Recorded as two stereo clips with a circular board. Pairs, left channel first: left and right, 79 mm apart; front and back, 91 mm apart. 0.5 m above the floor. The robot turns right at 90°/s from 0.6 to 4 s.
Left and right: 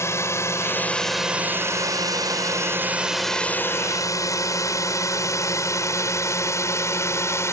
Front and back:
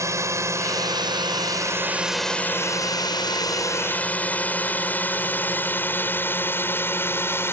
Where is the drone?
135° left; by 7.5 s 55° left.